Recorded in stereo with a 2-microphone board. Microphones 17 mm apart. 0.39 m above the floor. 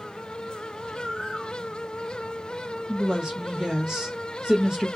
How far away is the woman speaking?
About 2.0 m.